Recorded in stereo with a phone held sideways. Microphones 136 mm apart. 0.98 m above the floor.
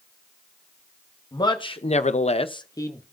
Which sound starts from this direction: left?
A man speaking, at 1.3 s.